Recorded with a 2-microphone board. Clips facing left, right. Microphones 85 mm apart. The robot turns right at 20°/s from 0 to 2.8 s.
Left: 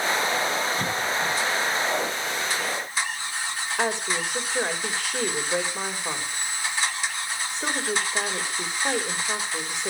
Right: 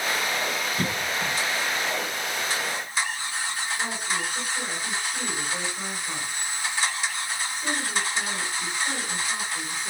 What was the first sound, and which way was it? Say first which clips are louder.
A cough: left 2 dB; 40° right (ahead or behind).